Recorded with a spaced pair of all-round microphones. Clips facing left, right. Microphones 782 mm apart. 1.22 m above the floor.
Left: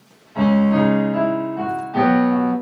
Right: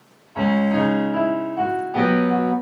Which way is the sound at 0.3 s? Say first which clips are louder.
Left 3 dB; 55° left (ahead or behind).